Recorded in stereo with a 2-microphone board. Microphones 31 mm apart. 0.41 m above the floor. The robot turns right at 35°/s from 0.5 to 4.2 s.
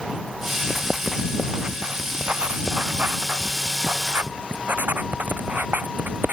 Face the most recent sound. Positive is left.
turn(degrees=-65)